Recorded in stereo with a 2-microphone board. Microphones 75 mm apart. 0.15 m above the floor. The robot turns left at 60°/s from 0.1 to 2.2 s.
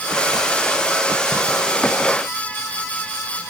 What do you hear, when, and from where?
Only background noise.